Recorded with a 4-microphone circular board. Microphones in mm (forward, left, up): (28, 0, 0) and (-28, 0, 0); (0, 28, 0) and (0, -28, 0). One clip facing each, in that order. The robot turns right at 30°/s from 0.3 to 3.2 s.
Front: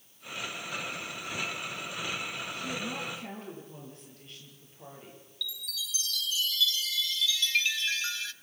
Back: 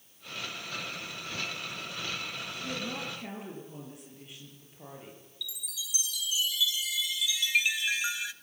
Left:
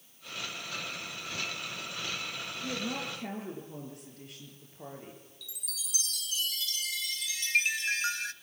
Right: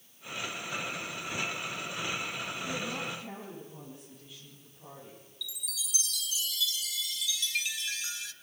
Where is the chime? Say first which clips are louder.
Front 4 dB, right 6 dB; 110° left, 0.6 m.